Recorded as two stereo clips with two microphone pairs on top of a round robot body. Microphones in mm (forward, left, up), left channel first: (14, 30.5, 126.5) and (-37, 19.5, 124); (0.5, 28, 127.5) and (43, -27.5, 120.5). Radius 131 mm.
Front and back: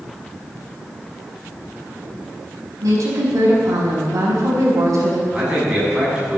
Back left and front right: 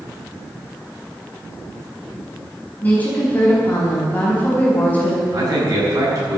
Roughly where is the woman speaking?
Behind.